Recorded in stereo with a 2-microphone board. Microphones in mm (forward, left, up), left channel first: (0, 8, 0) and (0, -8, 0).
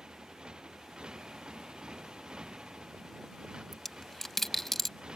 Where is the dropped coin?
25° left (ahead or behind).